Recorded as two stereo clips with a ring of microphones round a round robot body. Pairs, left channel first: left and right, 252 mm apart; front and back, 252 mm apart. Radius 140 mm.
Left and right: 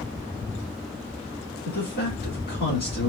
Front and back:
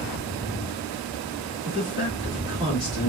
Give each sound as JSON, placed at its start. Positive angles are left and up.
{"t": 1.6, "sound": "a man speaking", "azimuth_deg": 35, "distance_m": 2.5}